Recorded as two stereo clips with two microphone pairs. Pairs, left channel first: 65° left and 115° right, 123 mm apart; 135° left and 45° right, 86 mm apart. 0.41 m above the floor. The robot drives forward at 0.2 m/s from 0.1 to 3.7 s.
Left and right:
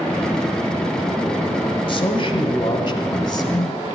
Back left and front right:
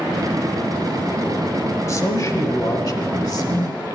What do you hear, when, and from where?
1.9 s a man speaking: 95° left, 1.4 m; by 4.0 s 115° left, 1.5 m